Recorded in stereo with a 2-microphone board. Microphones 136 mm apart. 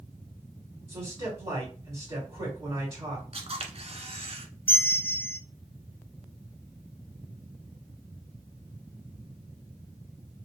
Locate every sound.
0.9 s a man speaking: 40° right (ahead or behind), 3 m
3.3 s a camera shutter: 50° right (ahead or behind), 0.9 m
4.7 s a bell: 15° left (ahead or behind), 0.7 m